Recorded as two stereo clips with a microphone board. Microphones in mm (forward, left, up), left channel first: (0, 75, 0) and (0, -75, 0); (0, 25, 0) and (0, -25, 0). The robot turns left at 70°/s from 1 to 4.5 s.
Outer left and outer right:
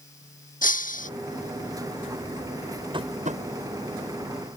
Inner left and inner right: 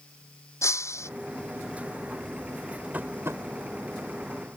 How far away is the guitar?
I don't hear a guitar.